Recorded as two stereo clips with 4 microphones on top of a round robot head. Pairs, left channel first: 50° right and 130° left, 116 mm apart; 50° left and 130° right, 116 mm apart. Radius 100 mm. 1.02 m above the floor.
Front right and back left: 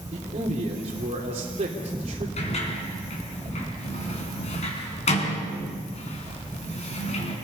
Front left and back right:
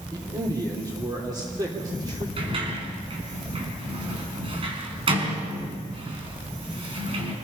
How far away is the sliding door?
About 4 m.